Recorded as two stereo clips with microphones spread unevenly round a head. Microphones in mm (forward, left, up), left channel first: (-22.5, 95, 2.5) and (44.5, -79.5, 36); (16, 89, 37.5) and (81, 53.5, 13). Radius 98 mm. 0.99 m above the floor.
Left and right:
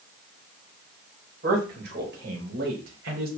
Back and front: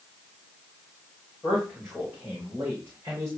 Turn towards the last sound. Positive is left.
turn(degrees=-90)